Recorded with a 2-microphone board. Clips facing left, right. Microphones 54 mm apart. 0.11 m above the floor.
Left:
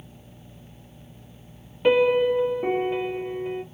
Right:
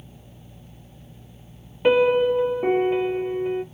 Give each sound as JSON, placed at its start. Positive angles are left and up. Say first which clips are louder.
{"t": 1.8, "sound": "a piano", "louder": "right 1 dB", "side_deg": -15, "distance_m": 0.5}